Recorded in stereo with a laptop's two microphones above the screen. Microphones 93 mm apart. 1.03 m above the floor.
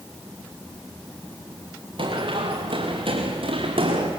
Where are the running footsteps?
70° right (ahead or behind), 5.5 m; by 4.1 s 80° right, 5.5 m.